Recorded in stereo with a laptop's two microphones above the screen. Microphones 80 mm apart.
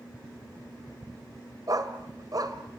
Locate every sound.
1.7 s a dog barking: 50° right (ahead or behind), 2.5 m